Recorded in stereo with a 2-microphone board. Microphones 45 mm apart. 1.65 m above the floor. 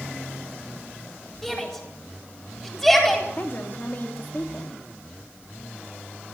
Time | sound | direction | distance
1.4 | a shout | 10° left (ahead or behind) | 9.5 m
3.4 | a woman speaking | 40° left (ahead or behind) | 3 m